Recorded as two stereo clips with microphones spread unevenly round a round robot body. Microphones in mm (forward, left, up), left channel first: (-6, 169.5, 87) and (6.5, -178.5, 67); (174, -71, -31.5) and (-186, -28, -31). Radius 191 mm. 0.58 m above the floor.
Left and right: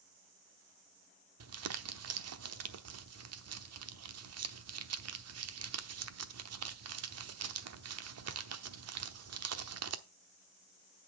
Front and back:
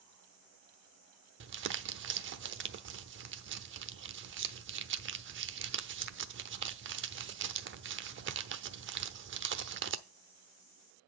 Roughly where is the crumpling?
Behind right.